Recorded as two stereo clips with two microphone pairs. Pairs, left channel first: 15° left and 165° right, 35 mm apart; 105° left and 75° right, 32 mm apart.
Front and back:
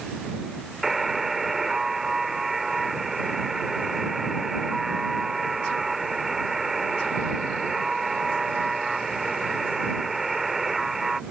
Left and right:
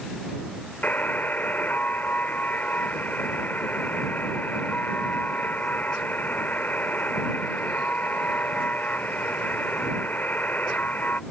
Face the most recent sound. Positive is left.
turn(degrees=115)